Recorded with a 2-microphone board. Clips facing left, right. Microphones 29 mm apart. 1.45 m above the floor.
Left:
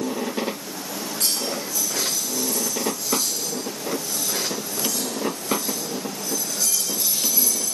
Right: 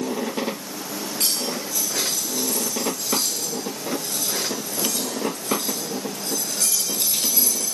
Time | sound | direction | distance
1.2 | cutlery clinking | 70° right (ahead or behind) | 7.5 m